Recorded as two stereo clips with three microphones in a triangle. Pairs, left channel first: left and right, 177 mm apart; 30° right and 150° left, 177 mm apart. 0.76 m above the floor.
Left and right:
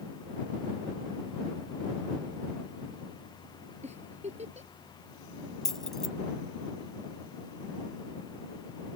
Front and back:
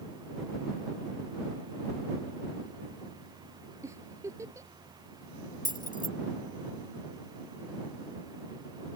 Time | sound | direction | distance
3.8 | a giggle | 140° right | ?
5.7 | keys jangling | straight ahead | ?